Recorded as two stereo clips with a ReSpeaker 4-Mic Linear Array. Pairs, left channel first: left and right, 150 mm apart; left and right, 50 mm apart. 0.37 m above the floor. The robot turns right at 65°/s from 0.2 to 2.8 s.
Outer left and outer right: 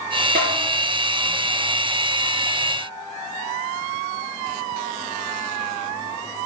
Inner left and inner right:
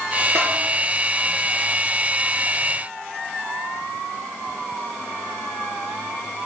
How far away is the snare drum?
About 3.5 m.